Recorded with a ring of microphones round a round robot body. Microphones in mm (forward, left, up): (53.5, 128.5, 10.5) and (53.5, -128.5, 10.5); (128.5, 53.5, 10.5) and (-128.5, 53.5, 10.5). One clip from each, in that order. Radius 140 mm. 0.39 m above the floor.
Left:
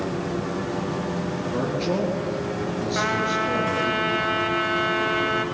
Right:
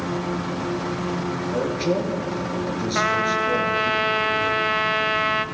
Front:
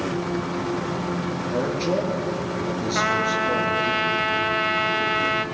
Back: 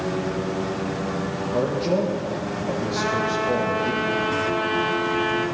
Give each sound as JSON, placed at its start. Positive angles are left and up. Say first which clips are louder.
{"t": 1.5, "sound": "a man speaking", "louder": "right 2 dB, back 2 dB", "azimuth_deg": -40, "distance_m": 5.5}
{"t": 3.0, "sound": "a trumpet", "louder": "right 3 dB, front 3 dB", "azimuth_deg": -40, "distance_m": 1.0}